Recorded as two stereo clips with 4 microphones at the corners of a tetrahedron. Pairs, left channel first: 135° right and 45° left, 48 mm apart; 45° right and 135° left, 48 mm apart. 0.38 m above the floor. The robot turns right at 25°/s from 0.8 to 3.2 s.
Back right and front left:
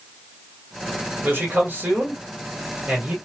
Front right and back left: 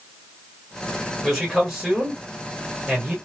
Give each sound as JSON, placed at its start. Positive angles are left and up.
{"t": 1.2, "sound": "a man speaking", "azimuth_deg": 50, "distance_m": 1.6}